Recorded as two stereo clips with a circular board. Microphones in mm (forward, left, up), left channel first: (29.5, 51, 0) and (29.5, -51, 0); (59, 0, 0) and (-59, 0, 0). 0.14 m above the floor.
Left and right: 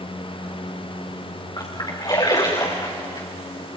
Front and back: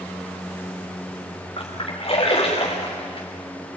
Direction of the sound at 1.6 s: 40° left.